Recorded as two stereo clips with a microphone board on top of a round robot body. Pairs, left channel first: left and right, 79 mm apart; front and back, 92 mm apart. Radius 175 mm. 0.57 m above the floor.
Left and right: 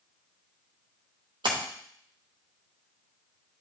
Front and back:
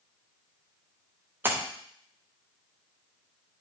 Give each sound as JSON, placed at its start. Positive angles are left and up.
{"t": 1.4, "sound": "a splash", "azimuth_deg": -110, "distance_m": 1.0}